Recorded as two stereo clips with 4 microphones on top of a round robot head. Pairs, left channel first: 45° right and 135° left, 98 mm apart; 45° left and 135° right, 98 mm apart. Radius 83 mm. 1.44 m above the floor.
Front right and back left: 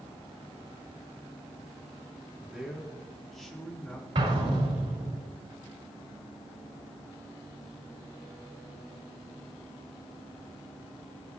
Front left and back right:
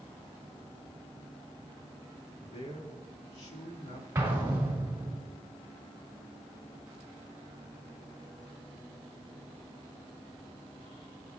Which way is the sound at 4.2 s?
155° left.